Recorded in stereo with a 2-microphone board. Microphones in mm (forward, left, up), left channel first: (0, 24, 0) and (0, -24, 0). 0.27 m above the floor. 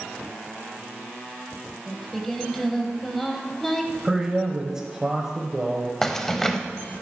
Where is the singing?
10° left (ahead or behind), 1.2 m.